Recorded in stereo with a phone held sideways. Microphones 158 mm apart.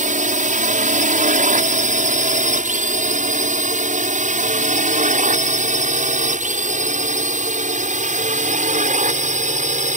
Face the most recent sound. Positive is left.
turn(degrees=-55)  # may be behind; listen again after turning